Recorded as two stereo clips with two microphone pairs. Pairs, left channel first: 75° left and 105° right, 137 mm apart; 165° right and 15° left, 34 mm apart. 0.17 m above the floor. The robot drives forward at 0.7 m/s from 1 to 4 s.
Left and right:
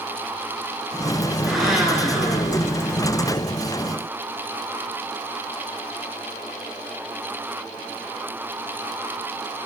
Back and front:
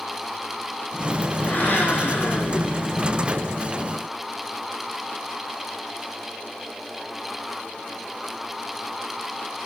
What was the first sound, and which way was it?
A blender, 165° left.